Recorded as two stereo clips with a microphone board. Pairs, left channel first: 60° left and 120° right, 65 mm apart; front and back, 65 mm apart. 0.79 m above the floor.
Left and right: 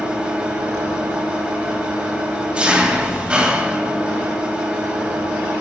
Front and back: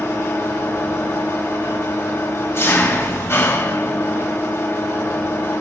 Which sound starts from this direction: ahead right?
An engine running, at 0.0 s.